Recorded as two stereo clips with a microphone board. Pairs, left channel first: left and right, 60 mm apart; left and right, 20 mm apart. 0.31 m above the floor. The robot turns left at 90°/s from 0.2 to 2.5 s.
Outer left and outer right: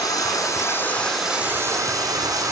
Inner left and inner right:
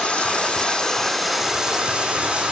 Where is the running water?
90° left, 3.5 m; by 2.5 s 115° right, 3.5 m.